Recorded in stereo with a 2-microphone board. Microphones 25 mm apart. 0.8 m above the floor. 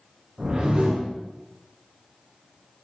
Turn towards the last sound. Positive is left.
turn(degrees=-40)  # may be behind; listen again after turning